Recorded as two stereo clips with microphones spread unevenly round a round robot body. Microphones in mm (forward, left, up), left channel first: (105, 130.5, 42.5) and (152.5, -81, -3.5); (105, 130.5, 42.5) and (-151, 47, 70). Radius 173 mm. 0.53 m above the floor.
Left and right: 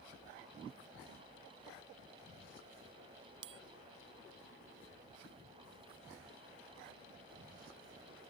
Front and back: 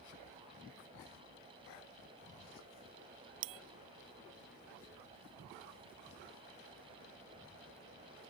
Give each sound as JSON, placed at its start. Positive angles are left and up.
{"t": 3.4, "sound": "a bell", "azimuth_deg": -135}